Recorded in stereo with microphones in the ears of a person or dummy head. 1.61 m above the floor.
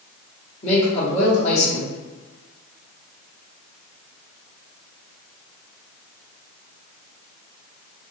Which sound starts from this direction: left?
A man speaking, at 0.6 s.